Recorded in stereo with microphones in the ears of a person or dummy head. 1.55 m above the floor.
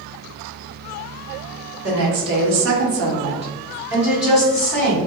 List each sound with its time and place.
1.8 s a woman speaking: 55° right (ahead or behind), 1.2 m; by 5.0 s 5° left (ahead or behind), 1.7 m